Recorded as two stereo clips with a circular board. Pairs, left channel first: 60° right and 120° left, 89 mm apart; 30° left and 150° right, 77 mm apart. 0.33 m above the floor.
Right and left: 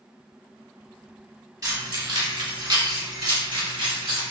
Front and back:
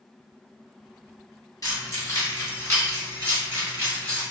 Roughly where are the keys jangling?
Left.